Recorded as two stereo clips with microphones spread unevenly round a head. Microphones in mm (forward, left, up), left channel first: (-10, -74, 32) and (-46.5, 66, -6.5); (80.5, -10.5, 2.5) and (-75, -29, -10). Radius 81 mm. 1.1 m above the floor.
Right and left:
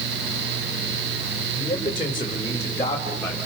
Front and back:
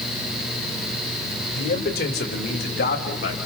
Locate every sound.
1.6 s a man speaking: 20° right, 4 m; by 3.4 s 5° left, 5 m